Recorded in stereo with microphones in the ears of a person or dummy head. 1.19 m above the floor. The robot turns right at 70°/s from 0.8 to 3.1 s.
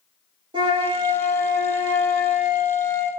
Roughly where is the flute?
Behind right.